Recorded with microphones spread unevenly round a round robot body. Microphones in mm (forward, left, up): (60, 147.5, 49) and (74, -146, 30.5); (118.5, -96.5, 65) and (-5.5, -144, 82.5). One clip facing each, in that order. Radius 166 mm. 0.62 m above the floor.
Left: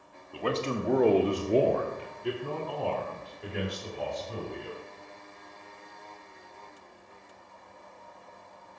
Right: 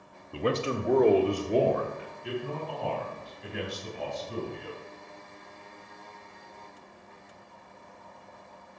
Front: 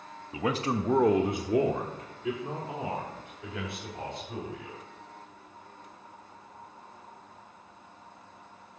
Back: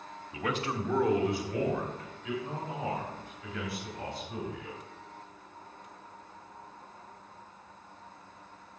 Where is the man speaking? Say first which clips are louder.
Right 2 dB, front 4 dB; 35° right, 0.9 m; by 4.8 s 60° left, 3 m.